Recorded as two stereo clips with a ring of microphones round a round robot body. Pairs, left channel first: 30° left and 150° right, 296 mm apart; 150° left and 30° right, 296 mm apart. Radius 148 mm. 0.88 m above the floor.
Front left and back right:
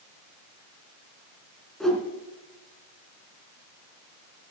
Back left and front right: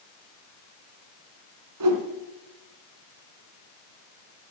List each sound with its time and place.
1.8 s a whoosh: 60° right, 2.5 m